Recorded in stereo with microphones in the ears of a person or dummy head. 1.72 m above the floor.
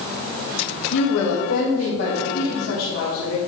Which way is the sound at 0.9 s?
60° left (ahead or behind).